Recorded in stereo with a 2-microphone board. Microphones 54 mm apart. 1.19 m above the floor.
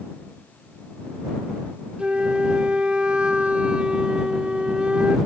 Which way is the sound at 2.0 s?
20° right (ahead or behind).